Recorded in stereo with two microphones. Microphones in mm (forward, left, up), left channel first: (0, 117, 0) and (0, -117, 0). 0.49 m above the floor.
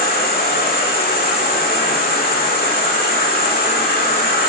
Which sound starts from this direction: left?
An insect, at 0.0 s.